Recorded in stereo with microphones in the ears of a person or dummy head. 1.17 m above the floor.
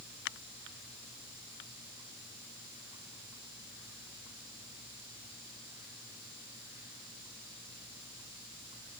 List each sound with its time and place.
Only background noise.